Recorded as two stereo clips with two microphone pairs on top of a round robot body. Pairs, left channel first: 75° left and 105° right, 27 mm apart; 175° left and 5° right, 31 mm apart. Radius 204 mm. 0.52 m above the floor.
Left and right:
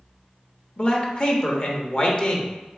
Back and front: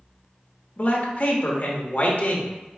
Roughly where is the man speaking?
Behind left.